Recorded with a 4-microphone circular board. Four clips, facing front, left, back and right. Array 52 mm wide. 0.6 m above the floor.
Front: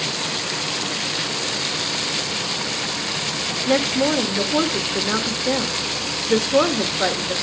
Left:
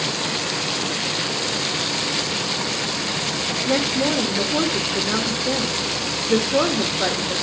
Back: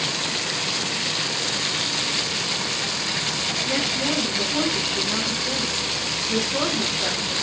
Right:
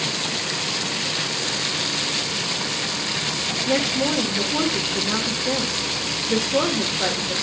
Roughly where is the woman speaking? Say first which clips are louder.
Left 1 dB, front 8 dB; ahead.